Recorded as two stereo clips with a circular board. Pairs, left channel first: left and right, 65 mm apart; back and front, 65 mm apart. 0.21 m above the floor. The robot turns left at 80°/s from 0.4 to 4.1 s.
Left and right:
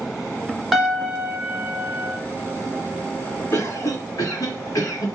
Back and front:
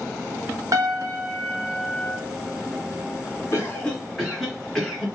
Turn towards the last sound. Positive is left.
turn(degrees=85)